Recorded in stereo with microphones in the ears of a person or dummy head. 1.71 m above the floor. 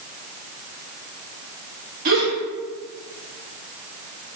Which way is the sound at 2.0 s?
50° right (ahead or behind).